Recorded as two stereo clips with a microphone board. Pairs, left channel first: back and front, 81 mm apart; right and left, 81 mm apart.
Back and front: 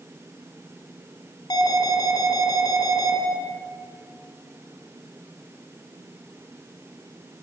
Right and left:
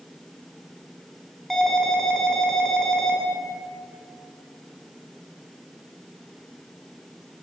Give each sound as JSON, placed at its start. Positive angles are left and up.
{"t": 1.5, "sound": "an alarm", "azimuth_deg": 180, "distance_m": 1.7}